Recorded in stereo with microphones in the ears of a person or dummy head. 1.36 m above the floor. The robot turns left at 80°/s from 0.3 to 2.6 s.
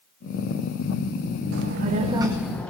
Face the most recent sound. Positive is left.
turn(degrees=170)